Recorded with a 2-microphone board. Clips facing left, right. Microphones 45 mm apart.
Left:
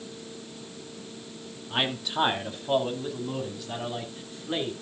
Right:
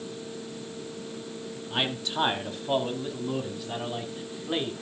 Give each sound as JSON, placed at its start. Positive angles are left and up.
{"t": 1.7, "sound": "a man speaking", "side_deg": 10, "distance_m": 2.0}